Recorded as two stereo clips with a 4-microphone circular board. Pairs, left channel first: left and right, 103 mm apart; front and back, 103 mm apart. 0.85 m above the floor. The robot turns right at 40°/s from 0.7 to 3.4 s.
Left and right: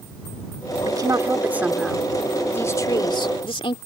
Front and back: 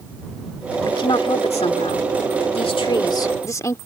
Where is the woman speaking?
45° right; by 3.8 s 60° left.